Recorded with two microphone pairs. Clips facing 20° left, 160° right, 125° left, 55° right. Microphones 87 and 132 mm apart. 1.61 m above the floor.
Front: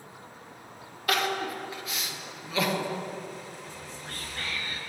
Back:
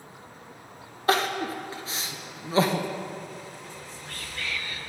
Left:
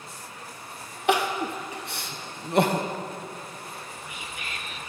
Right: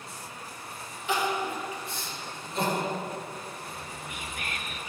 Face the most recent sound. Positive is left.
turn(degrees=-25)